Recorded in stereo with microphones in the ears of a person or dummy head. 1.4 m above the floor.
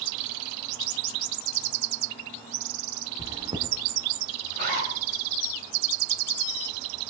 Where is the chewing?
20° right (ahead or behind), 1.7 m.